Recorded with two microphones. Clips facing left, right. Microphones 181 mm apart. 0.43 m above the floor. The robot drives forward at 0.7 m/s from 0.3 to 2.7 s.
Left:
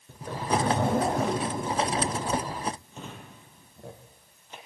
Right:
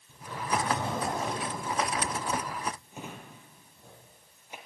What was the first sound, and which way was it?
A zipper, 60° left (ahead or behind).